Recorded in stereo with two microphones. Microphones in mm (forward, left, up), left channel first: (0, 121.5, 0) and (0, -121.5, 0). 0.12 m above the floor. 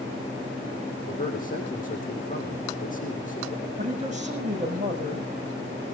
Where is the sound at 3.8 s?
30° right (ahead or behind), 7.5 m.